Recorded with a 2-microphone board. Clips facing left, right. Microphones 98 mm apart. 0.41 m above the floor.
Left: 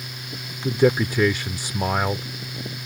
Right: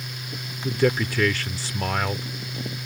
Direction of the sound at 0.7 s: 20° left (ahead or behind).